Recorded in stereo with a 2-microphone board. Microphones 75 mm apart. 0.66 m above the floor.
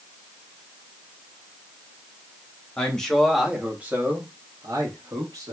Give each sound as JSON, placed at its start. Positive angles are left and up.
{"t": 2.8, "sound": "a man speaking", "side_deg": 15, "distance_m": 1.0}